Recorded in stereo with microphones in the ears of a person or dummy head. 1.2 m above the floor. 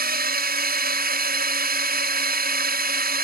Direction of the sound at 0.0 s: 55° right (ahead or behind).